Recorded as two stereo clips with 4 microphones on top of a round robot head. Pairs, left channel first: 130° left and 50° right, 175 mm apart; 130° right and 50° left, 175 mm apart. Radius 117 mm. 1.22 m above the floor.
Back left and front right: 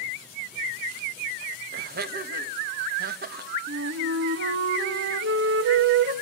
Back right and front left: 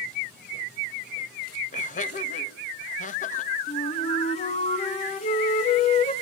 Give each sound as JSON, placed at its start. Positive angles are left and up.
{"t": 1.7, "sound": "laughter", "azimuth_deg": -85, "distance_m": 1.9}
{"t": 3.7, "sound": "a flute", "azimuth_deg": -75, "distance_m": 1.7}